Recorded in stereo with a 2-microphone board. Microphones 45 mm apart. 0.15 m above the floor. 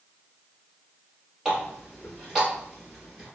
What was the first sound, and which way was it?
A running tap, 15° right (ahead or behind).